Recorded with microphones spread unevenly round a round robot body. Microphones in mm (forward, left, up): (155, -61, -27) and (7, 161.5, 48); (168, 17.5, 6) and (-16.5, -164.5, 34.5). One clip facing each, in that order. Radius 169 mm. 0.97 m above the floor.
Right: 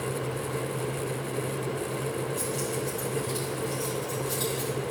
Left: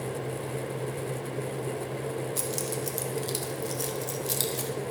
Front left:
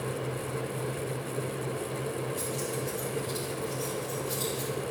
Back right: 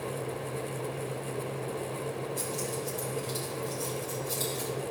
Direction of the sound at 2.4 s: 140° left.